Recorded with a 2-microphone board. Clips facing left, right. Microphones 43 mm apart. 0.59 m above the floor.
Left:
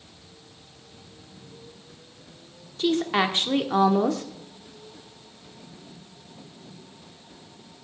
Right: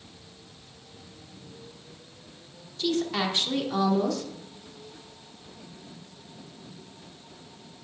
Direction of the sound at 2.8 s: 35° left (ahead or behind).